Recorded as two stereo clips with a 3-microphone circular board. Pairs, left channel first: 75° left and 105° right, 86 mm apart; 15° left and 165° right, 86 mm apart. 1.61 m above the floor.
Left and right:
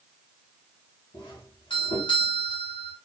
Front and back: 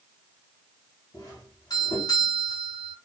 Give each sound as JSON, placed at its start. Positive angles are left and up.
{"t": 1.1, "sound": "a doorbell", "azimuth_deg": 55, "distance_m": 2.0}